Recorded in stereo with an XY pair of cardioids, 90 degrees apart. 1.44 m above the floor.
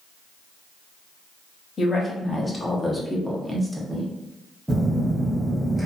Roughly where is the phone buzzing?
Ahead.